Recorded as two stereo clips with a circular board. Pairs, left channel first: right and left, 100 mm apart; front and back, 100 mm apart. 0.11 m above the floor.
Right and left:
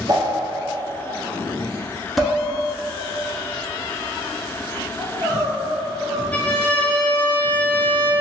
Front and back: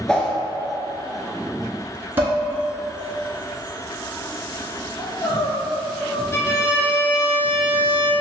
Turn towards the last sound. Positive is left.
turn(degrees=-30)